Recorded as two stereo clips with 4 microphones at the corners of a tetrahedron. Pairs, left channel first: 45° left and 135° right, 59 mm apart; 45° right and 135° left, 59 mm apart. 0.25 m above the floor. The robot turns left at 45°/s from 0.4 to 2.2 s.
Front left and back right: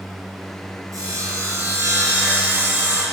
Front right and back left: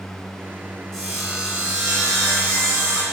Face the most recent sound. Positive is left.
turn(degrees=180)